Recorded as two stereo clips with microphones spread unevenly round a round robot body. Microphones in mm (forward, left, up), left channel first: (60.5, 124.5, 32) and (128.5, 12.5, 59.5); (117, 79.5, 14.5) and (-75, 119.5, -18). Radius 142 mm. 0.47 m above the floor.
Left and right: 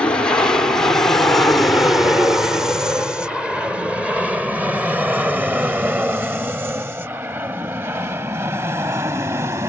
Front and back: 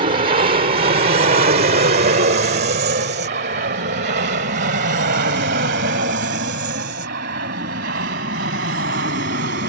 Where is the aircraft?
Straight behind; by 9.7 s 135° right.